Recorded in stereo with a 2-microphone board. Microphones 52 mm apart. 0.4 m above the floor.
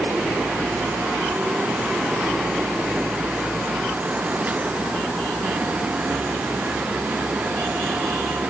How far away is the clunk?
No clunk in this recording.